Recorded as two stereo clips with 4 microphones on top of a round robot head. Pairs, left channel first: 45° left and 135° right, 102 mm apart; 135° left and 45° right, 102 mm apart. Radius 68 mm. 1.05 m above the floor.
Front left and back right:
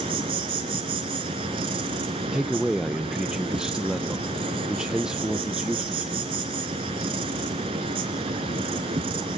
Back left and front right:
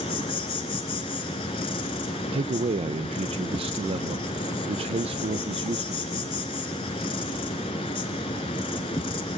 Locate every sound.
0.0 s an insect: straight behind, 1.8 m
2.3 s a man speaking: 55° right, 0.6 m